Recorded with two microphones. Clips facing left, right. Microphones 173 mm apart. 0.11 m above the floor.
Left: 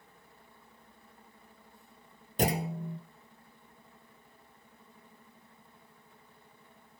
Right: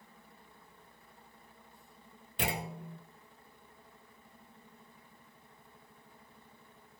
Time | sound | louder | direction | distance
2.4 | a clunk | left 7 dB | 40° left (ahead or behind) | 0.9 m